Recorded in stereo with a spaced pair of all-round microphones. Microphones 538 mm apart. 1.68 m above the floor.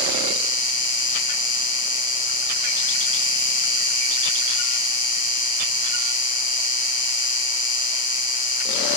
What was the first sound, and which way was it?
An insect, 40° left (ahead or behind).